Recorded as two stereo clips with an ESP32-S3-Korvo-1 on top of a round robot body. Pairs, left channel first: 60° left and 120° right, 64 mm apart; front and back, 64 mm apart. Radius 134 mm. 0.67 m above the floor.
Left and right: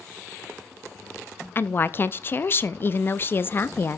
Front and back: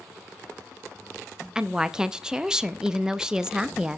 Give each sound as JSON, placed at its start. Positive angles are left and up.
{"t": 1.6, "sound": "a woman speaking", "azimuth_deg": 105, "distance_m": 0.7}